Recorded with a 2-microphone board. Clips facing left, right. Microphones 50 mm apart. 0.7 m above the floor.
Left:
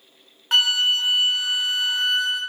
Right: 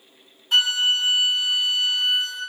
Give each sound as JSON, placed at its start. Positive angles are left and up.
{"t": 0.5, "sound": "a flute", "side_deg": 85, "distance_m": 1.1}